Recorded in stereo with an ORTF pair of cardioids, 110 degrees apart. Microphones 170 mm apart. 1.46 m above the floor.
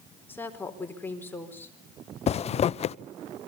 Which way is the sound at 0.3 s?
10° left.